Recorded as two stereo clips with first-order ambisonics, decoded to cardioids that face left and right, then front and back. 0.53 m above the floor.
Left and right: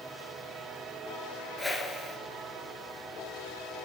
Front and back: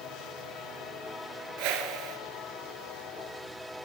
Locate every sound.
1.6 s a whoosh: 175° left, 1.2 m